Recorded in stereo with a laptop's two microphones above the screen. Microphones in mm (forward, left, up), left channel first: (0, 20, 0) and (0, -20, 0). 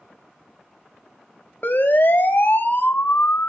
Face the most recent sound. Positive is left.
turn(degrees=50)  # may be behind; listen again after turning